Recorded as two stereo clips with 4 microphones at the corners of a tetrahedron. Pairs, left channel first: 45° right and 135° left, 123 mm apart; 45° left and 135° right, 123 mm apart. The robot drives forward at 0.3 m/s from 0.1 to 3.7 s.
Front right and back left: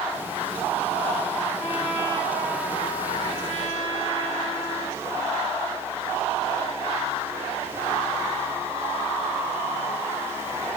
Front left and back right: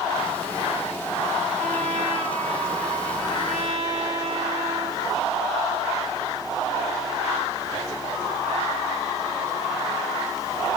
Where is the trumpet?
95° right, 3.5 m; by 5.0 s 110° right, 3.5 m.